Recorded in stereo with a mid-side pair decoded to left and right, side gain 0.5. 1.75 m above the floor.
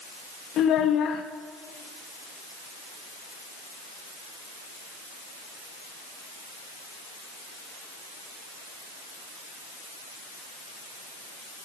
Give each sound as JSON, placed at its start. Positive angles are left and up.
{"t": 0.6, "sound": "a child speaking", "azimuth_deg": 65, "distance_m": 2.0}